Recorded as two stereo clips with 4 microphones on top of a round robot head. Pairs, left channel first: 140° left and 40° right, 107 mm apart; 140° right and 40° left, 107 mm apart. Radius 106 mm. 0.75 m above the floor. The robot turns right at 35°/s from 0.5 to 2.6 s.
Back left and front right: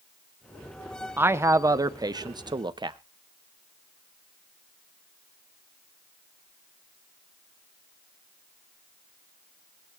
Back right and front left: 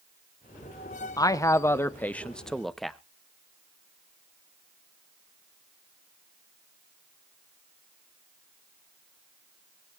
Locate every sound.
1.2 s a man speaking: 100° right, 1.1 m; by 3.0 s 50° right, 1.1 m